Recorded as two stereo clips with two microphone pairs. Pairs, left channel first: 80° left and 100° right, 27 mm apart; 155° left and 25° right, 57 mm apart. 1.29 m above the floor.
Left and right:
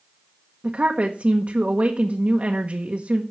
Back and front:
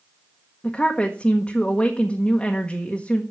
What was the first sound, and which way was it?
A woman speaking, 135° right.